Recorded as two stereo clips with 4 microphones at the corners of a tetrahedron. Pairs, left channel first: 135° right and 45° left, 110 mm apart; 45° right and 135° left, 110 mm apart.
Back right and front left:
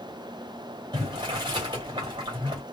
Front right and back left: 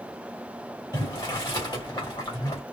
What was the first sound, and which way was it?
Boiling, straight ahead.